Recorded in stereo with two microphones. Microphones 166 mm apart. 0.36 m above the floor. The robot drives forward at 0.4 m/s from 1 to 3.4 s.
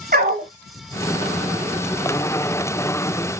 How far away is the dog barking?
About 1.4 m.